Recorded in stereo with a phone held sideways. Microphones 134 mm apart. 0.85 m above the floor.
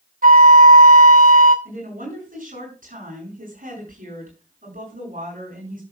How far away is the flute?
About 1.0 m.